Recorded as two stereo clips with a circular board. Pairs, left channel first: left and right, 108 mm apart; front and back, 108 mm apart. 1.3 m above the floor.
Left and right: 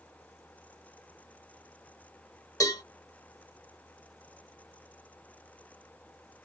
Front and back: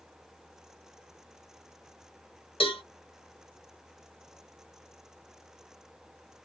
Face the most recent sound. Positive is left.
turn(degrees=30)